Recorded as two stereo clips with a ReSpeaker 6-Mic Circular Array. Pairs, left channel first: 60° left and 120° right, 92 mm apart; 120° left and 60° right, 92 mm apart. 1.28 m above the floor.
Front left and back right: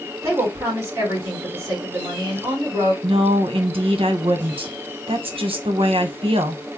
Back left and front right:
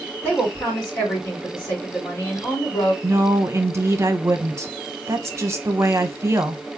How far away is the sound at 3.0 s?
About 0.8 m.